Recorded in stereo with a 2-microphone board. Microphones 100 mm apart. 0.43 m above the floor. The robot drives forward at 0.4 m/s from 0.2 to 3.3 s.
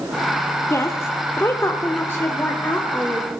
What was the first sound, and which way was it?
A woman speaking, 30° left (ahead or behind).